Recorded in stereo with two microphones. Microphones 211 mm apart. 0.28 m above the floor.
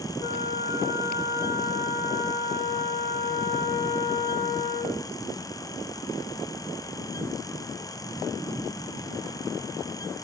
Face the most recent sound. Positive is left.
turn(degrees=35)  # may be behind; listen again after turning